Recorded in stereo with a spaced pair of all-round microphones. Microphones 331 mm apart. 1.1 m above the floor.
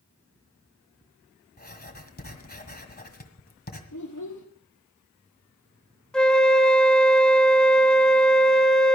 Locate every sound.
1.6 s writing: 30° left (ahead or behind), 1.6 m
3.9 s a child speaking: 60° left (ahead or behind), 1.0 m
6.1 s a flute: centre (ahead or behind), 0.9 m